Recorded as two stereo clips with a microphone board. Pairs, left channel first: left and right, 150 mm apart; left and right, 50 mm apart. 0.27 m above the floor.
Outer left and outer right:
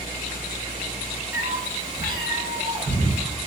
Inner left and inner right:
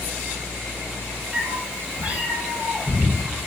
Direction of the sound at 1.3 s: 15° right (ahead or behind).